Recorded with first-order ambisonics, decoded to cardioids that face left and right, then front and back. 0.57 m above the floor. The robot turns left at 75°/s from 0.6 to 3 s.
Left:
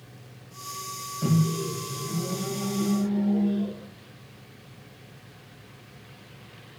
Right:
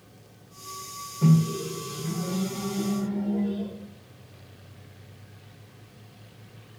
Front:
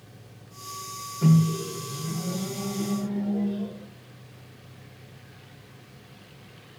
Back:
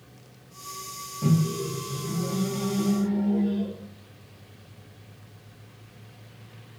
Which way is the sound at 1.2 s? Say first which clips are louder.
Right 2 dB, front 2 dB; 40° right.